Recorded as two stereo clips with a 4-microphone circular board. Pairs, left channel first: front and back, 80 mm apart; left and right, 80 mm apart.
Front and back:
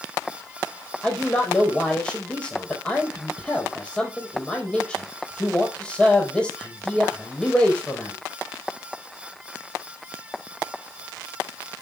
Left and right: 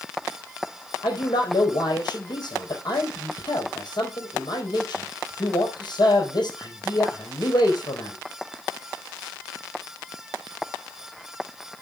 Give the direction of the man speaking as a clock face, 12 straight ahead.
9 o'clock.